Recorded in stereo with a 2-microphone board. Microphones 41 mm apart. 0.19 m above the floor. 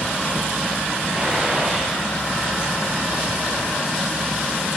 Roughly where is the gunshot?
Right.